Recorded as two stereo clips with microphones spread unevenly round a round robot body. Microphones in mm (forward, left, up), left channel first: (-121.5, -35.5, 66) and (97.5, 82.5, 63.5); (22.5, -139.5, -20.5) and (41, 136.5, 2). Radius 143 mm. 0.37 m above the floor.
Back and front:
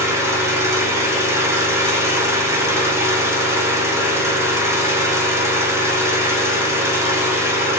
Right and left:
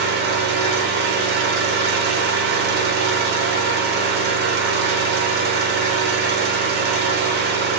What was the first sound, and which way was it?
An engine running, 95° left.